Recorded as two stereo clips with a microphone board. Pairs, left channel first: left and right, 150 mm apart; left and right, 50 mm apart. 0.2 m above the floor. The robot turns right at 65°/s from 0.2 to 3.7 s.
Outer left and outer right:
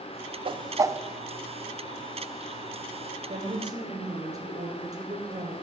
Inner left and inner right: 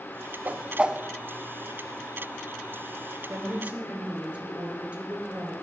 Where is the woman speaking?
50° right (ahead or behind), 3 m; by 5.5 s 25° right (ahead or behind), 3 m.